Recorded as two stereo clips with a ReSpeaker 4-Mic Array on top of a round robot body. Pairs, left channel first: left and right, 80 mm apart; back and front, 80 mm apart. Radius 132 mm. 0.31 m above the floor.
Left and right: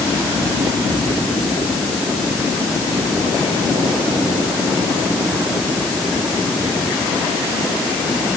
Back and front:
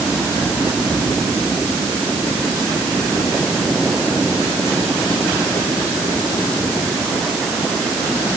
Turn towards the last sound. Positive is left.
No sound to turn to.